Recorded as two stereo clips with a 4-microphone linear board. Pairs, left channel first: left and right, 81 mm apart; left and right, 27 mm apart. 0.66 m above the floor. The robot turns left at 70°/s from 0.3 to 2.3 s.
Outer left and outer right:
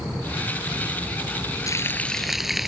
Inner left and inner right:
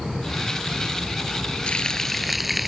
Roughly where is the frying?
Ahead left.